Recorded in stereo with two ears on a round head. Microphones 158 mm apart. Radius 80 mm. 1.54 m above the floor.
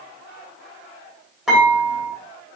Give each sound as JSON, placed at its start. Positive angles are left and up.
{"t": 1.5, "sound": "dishes clattering", "side_deg": -5, "distance_m": 4.0}